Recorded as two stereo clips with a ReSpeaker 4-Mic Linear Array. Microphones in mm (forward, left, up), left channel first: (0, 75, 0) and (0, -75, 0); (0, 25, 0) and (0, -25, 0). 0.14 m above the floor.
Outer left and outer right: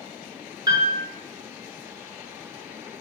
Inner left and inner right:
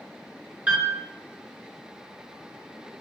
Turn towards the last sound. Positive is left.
turn(degrees=-30)  # may be behind; listen again after turning